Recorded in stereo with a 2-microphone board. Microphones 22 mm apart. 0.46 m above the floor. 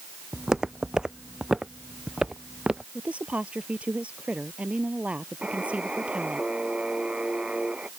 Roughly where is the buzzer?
Right.